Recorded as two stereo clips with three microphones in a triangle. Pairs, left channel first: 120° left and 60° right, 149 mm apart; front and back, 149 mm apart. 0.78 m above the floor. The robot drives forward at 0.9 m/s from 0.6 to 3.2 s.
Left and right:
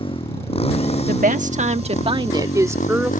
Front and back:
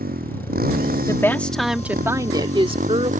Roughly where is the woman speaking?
Ahead right.